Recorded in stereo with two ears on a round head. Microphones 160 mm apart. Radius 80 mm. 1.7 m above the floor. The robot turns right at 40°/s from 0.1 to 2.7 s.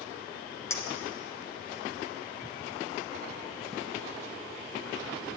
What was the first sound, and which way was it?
A clink, 15° left (ahead or behind).